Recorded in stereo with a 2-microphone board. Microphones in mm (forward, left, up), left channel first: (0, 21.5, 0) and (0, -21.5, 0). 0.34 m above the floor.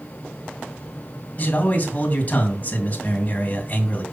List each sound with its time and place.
1.4 s a man speaking: 40° left (ahead or behind), 3 m